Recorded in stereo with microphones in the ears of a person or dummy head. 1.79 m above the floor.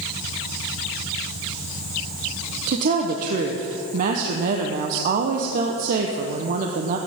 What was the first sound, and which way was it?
A woman speaking, 55° right (ahead or behind).